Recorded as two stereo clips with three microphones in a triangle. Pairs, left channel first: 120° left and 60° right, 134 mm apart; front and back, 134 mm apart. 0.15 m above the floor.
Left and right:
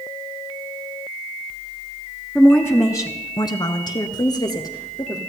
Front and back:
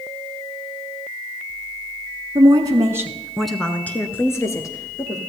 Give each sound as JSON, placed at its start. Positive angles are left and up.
{"t": 2.4, "sound": "a woman speaking", "azimuth_deg": -165, "distance_m": 1.4}